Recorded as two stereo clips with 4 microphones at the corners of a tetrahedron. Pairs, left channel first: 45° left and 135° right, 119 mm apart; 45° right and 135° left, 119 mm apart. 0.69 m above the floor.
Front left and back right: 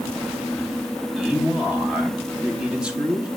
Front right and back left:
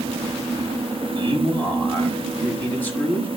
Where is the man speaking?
70° right, 1.1 m.